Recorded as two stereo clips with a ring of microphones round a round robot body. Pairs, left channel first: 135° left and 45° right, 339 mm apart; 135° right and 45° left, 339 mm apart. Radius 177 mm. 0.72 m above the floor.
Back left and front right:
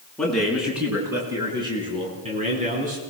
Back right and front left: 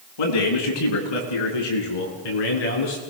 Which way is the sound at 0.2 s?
135° right.